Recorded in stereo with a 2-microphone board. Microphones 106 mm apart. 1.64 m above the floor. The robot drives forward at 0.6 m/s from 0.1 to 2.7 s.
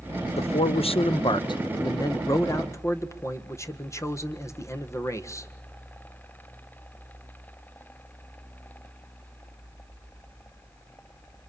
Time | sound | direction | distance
0.4 | a man speaking | 85° left | 0.8 m